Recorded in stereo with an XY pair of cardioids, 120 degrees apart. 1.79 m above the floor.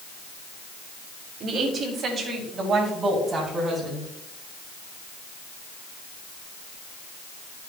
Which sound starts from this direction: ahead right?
A woman speaking, at 1.4 s.